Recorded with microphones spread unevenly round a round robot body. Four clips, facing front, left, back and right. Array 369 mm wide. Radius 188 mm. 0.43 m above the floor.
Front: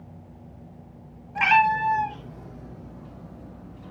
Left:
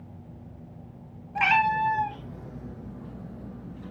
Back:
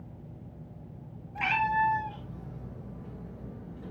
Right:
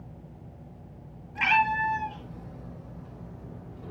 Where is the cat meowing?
40° left, 2 m; by 3.9 s 95° left, 1.8 m.